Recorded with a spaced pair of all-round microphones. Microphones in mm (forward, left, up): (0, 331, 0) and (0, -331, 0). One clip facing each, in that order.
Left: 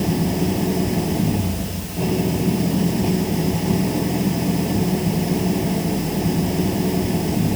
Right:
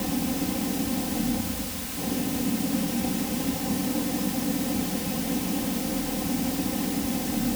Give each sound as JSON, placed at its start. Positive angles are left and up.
{"t": 0.0, "sound": "an engine running", "side_deg": 75}